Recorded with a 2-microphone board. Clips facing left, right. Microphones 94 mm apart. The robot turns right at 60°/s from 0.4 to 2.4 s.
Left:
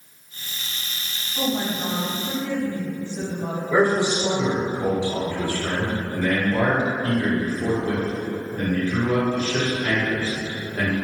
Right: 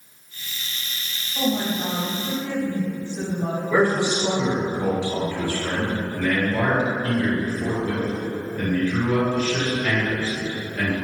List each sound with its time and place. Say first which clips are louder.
1.4 s a woman speaking: right 1 dB; 80° right, 1.8 m; by 3.6 s 20° right, 1.8 m
3.7 s a man speaking: left 1 dB; 25° left (ahead or behind), 1.0 m
6.1 s a man speaking: left 2 dB; 40° left (ahead or behind), 1.5 m